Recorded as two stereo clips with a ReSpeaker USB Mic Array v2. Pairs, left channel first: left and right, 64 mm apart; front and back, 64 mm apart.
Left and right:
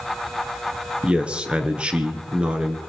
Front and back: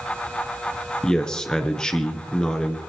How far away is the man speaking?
About 1.6 m.